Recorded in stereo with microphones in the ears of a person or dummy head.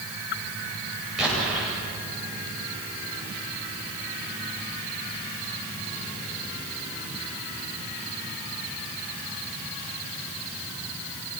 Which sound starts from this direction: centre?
An explosion, at 1.2 s.